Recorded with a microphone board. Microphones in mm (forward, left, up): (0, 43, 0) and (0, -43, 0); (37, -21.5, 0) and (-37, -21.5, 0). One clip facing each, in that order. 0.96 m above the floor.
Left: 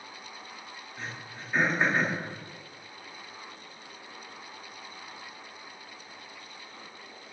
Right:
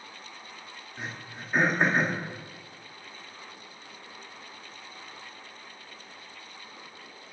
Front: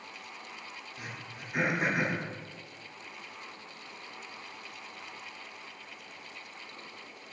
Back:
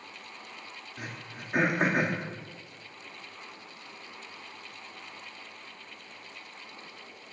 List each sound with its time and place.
1.0 s throat clearing: 160° right, 1.9 m